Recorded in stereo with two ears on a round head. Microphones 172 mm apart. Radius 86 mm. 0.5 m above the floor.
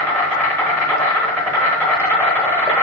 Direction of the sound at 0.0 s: 10° left (ahead or behind).